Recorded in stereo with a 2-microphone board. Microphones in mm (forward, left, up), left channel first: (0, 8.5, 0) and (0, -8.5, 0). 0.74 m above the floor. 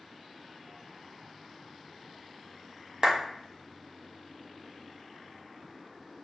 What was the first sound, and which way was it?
A clap, 50° right (ahead or behind).